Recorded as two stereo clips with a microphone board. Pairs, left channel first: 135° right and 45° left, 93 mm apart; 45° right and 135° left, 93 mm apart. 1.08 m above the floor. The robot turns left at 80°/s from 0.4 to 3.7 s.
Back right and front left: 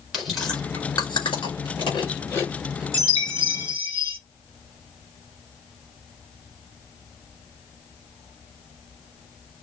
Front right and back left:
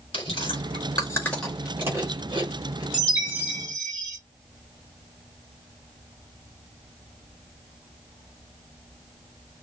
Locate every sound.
0.1 s chewing: 45° right, 4.5 m; by 2.8 s 120° left, 4.5 m
2.9 s a chime: 100° left, 4 m; by 4.2 s 35° left, 4 m